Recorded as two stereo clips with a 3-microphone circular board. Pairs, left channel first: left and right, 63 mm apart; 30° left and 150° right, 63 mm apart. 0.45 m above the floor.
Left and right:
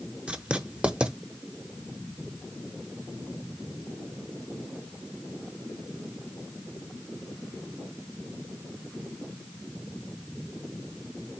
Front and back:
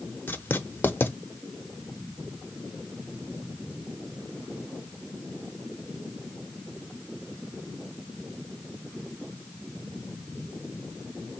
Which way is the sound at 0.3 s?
20° right.